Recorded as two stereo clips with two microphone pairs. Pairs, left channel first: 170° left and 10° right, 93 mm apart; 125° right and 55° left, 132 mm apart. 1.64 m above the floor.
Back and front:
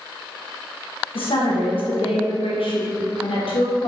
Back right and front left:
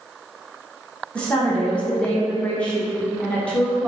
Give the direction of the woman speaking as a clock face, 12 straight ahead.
7 o'clock.